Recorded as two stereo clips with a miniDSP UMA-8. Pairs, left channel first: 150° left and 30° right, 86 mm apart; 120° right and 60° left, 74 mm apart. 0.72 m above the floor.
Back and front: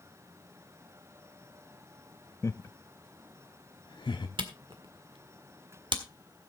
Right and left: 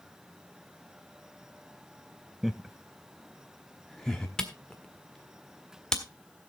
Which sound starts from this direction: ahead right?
A camera shutter, at 4.4 s.